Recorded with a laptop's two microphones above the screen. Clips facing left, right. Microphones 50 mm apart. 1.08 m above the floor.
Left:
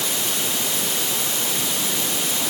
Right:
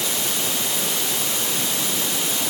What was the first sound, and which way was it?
Only background noise.